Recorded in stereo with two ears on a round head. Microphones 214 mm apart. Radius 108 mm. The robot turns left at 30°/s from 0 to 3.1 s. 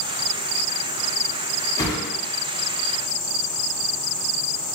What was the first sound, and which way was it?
A whoosh, 15° left (ahead or behind).